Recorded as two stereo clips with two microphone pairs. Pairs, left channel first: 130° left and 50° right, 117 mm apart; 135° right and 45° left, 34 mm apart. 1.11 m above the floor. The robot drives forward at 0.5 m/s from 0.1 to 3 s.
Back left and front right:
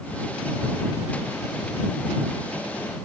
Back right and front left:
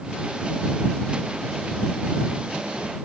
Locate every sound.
Only background noise.